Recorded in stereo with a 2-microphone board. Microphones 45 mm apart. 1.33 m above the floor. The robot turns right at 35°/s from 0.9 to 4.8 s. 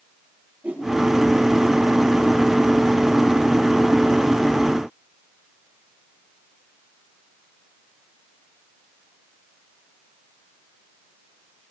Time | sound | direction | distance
0.6 | a whoosh | 40° right (ahead or behind) | 6 m